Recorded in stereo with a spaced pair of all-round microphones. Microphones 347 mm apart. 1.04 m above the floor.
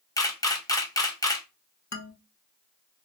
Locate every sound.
0.2 s a camera shutter: 10° left (ahead or behind), 0.7 m
1.9 s a man speaking: 50° left (ahead or behind), 0.7 m